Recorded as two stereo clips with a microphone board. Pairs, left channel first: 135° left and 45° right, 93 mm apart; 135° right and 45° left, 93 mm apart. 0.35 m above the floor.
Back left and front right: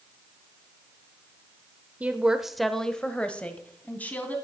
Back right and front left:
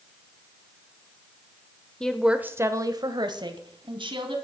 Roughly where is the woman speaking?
Right.